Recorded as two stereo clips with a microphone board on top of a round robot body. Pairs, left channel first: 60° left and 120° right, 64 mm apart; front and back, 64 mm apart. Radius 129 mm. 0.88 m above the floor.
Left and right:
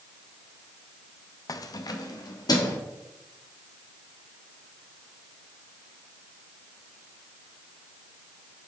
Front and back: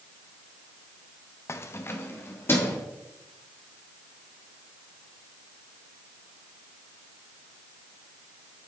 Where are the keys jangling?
45° left, 0.7 m; by 2.8 s 55° left, 2 m.